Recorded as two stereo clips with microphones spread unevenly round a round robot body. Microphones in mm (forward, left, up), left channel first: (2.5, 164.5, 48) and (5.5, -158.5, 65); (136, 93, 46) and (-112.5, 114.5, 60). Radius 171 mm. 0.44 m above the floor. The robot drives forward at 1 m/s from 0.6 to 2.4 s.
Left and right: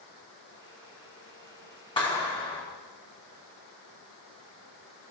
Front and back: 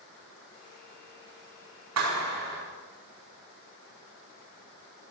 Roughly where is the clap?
Behind.